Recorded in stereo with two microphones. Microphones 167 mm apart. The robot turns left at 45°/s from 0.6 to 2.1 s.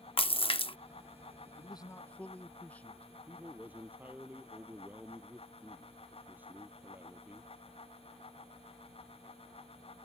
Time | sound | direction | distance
0.2 | a splash | 35° left (ahead or behind) | ?
1.6 | a man speaking | 35° left (ahead or behind) | ?
3.3 | a man speaking | 10° right (ahead or behind) | ?